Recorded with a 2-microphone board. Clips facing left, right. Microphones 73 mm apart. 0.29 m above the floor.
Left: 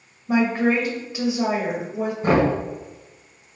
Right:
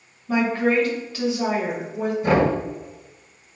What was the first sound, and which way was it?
A woman speaking, 20° left (ahead or behind).